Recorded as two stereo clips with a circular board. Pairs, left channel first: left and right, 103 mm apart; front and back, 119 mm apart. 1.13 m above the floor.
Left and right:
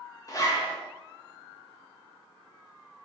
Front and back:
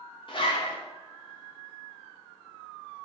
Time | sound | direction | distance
0.3 | a zipper | 35° left | 0.5 m